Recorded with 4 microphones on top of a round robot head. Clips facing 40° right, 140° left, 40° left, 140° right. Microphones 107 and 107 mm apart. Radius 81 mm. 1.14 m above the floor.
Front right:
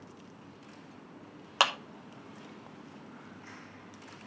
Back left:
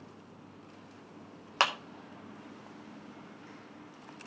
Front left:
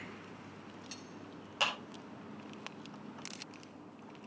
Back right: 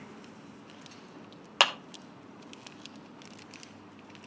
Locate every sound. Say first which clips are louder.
1.6 s a clap: front right 1 dB, back right 8 dB; 125° right, 0.7 m